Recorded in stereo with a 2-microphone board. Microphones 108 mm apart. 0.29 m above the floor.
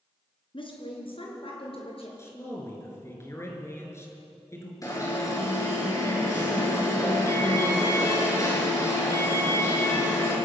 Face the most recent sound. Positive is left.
turn(degrees=30)  # may be behind; listen again after turning